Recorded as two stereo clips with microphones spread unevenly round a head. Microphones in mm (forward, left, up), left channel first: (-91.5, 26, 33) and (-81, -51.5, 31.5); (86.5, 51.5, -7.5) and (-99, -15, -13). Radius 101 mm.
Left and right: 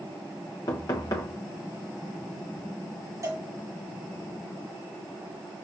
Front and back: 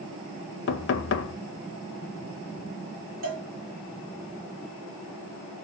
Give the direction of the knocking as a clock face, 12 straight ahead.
11 o'clock.